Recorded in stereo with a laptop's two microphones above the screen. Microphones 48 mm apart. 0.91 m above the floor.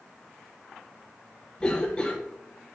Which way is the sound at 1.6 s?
20° left (ahead or behind).